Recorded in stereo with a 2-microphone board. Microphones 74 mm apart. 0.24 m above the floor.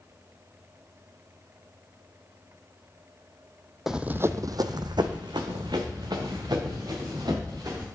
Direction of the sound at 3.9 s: 5° right (ahead or behind).